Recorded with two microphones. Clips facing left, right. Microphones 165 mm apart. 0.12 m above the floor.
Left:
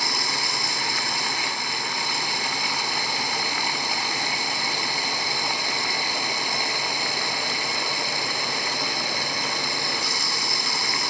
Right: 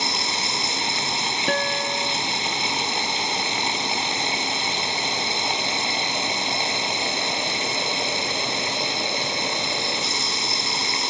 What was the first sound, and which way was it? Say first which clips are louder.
Running water: right 2 dB; 20° right (ahead or behind).